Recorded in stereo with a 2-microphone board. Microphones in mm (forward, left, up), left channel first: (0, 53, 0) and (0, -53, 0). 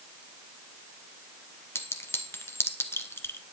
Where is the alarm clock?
I don't hear an alarm clock.